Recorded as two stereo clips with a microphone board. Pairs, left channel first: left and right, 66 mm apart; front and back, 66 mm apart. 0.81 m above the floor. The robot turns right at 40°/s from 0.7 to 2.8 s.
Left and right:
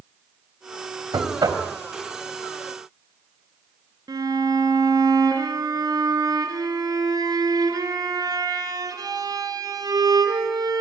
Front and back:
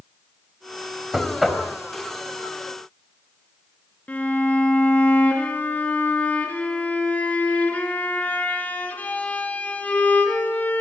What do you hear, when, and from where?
1.1 s knocking: 105° right, 3.5 m; by 1.6 s 80° right, 3.5 m
4.1 s a violin: 70° right, 4 m